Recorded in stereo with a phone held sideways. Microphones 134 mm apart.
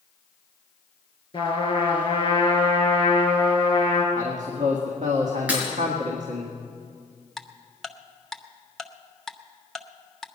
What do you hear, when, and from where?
1.3 s a trumpet: 35° left (ahead or behind), 3.5 m
4.2 s a man speaking: 60° right (ahead or behind), 1.8 m
5.5 s breaking glass: 10° right (ahead or behind), 4 m
7.4 s ticking: centre (ahead or behind), 0.7 m